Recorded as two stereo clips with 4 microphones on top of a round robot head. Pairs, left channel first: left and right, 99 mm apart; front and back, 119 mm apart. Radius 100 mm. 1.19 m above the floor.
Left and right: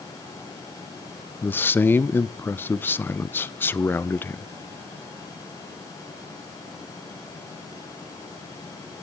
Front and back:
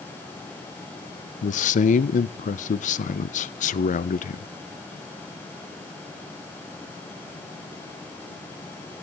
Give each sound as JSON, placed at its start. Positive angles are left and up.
{"t": 1.4, "sound": "a man speaking", "azimuth_deg": 20, "distance_m": 0.6}